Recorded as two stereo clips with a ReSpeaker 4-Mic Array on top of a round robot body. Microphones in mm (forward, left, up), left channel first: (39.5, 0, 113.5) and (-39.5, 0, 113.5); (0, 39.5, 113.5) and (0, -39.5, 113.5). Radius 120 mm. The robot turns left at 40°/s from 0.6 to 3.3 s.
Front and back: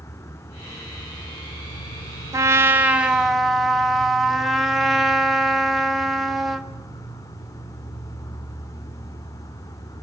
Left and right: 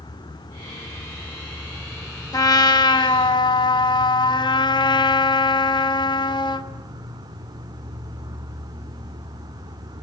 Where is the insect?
55° left, 1.3 m; by 10.0 s 55° right, 1.3 m.